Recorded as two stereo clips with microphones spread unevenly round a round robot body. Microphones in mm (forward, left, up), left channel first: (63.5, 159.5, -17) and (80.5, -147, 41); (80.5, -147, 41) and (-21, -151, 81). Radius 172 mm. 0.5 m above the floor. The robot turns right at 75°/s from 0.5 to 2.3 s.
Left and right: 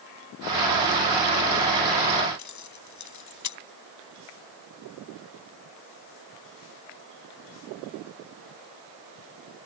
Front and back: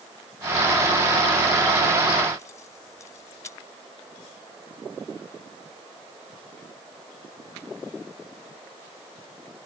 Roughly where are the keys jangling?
Ahead left.